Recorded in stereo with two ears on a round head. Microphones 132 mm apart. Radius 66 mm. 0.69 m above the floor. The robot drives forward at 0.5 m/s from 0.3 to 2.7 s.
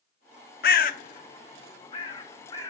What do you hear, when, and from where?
0.6 s a bird: 70° left (ahead or behind), 0.6 m; by 2.7 s 25° left (ahead or behind), 1.3 m